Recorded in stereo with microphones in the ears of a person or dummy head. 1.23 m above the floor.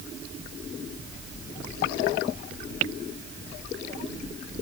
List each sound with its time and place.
Only background noise.